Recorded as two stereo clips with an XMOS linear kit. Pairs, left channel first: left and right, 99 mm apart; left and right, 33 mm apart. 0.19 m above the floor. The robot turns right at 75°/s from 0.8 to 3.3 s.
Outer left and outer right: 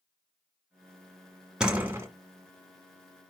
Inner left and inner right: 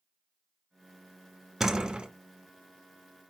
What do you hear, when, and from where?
1.6 s a door slam: 170° right, 1.6 m; by 2.1 s 135° right, 1.6 m